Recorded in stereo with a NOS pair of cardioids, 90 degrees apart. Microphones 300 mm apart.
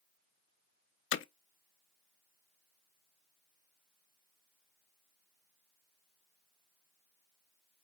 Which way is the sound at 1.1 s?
45° left.